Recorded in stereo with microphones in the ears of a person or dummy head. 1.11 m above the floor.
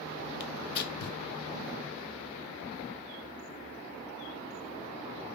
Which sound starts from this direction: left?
Tearing paper, at 0.4 s.